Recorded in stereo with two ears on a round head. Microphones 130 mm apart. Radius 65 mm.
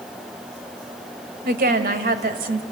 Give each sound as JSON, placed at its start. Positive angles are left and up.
{"t": 1.4, "sound": "a woman speaking", "side_deg": -65, "distance_m": 2.0}